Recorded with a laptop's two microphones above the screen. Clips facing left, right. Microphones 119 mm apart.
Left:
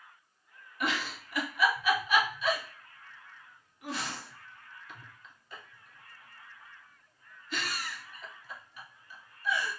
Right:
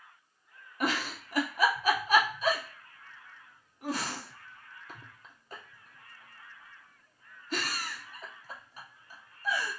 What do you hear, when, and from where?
0.8 s a giggle: 40° right (ahead or behind), 0.6 m